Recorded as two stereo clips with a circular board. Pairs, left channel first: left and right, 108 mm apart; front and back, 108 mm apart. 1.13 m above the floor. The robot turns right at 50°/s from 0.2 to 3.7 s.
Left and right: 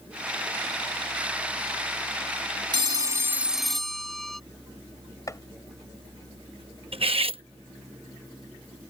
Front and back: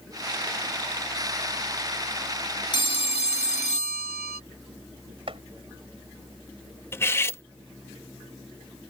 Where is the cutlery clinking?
65° right.